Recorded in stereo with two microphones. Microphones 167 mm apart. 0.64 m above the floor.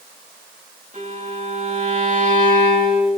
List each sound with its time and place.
0.9 s a violin: 45° right (ahead or behind), 8 m